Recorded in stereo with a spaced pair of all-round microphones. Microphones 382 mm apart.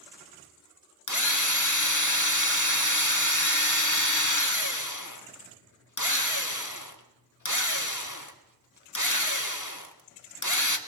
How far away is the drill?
About 1.7 m.